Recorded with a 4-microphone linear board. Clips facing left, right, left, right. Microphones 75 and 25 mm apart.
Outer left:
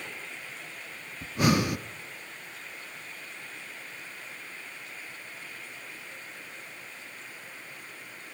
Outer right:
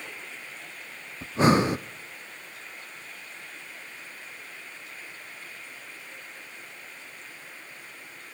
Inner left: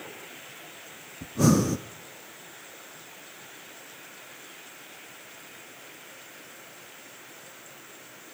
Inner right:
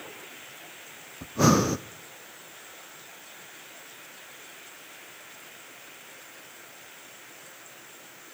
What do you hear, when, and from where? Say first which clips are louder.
1.2 s breathing: outer right 4 dB, inner right 1 dB; 30° right (ahead or behind), 0.6 m